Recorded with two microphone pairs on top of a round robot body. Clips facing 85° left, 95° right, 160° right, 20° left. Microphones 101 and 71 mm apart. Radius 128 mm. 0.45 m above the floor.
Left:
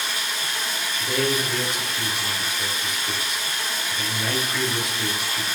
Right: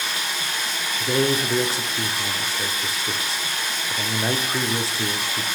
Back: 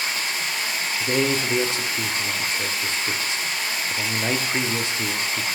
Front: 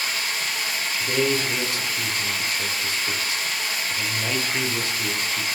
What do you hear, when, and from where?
0.0 s running water: 95° right, 1.4 m
1.0 s a man speaking: 125° right, 0.7 m